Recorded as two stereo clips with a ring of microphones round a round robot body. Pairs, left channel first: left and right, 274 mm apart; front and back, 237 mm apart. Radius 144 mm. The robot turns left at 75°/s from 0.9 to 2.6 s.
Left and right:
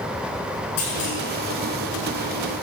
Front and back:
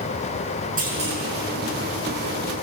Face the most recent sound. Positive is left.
turn(degrees=0)